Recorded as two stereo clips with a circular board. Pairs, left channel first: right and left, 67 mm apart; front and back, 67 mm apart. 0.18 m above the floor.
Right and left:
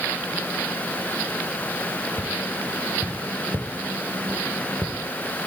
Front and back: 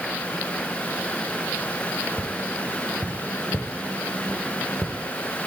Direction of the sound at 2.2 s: 125° left.